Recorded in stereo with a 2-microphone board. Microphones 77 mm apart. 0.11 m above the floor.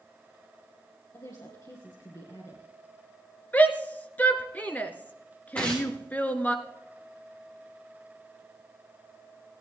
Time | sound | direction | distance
1.1 | a woman speaking | 50° left (ahead or behind) | 2.5 m
3.5 | a shout | 20° left (ahead or behind) | 1.2 m
5.5 | tearing paper | 15° left (ahead or behind) | 3.5 m